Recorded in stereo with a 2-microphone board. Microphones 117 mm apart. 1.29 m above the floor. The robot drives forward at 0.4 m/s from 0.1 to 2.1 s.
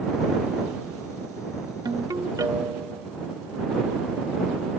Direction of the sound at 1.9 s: 30° right (ahead or behind).